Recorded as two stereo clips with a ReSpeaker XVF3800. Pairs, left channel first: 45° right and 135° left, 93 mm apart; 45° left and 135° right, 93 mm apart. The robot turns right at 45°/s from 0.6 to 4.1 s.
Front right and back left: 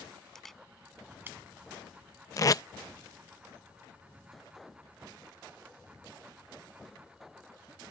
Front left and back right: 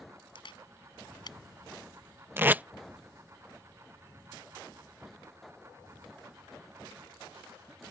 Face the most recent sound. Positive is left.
turn(degrees=0)